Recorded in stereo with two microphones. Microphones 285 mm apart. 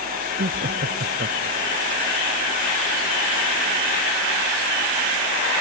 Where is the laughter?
40° right (ahead or behind).